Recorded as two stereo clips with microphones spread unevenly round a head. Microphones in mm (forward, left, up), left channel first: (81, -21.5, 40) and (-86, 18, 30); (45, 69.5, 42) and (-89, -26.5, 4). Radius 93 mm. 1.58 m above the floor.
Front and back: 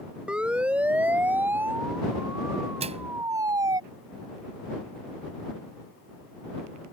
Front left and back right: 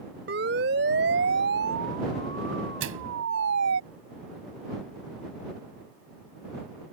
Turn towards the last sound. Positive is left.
turn(degrees=-135)